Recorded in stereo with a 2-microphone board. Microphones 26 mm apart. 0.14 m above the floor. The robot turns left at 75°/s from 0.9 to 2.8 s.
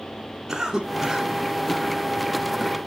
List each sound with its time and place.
0.5 s a cough: 25° right (ahead or behind), 1.6 m; by 2.8 s 35° left (ahead or behind), 1.6 m